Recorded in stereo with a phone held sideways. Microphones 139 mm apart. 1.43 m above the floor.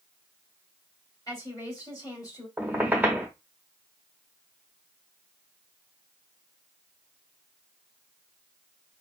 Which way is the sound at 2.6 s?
15° right (ahead or behind).